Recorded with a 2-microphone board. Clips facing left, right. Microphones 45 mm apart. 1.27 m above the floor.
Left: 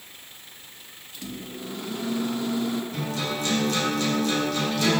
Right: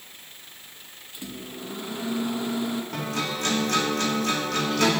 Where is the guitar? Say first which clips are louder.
Even; 80° right, 3 m.